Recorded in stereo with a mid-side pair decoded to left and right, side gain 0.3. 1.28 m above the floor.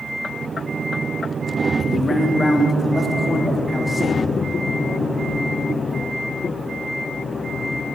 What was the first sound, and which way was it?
A man speaking, 45° left.